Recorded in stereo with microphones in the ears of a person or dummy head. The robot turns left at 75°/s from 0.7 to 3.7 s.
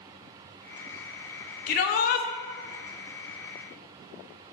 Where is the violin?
I don't hear a violin.